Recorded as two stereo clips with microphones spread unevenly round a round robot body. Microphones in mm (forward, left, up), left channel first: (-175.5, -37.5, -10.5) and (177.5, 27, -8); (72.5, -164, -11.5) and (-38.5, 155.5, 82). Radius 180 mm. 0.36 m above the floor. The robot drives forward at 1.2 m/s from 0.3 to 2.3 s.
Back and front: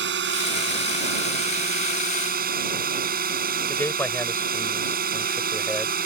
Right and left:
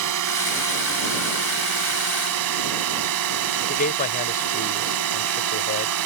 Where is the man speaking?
90° right.